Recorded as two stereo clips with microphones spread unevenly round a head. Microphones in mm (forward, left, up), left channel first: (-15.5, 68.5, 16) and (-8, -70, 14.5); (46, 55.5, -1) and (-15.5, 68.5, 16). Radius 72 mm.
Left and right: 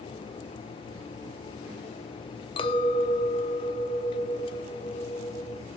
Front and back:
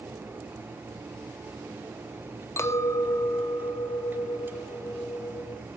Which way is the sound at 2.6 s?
40° left.